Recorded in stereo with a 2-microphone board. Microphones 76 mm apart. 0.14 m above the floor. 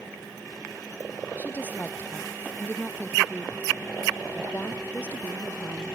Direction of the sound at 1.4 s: 25° left (ahead or behind).